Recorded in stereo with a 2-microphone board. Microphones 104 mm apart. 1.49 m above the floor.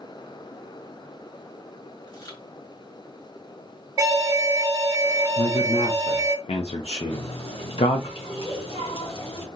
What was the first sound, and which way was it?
Chewing, 40° left (ahead or behind).